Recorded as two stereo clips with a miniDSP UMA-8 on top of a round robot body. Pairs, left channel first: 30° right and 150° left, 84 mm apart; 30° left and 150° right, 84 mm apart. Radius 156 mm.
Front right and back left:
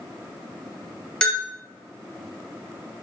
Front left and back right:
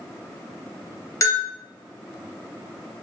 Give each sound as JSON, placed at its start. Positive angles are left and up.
{"t": 1.2, "sound": "a bell", "azimuth_deg": 40, "distance_m": 1.2}